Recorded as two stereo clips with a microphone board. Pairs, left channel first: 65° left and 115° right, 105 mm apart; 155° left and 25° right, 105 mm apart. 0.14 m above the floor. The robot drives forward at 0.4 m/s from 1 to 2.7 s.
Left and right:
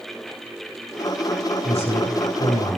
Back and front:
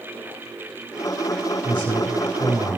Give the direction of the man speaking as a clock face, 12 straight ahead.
9 o'clock.